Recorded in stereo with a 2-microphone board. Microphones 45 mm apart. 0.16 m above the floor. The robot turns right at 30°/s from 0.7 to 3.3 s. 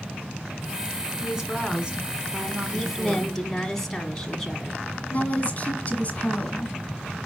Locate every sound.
1.2 s a woman speaking: 10° right (ahead or behind), 1.6 m; by 3.4 s 25° right (ahead or behind), 1.6 m
2.7 s a woman speaking: centre (ahead or behind), 1.3 m; by 4.8 s 10° left (ahead or behind), 1.3 m
5.1 s a woman speaking: 30° left (ahead or behind), 1.9 m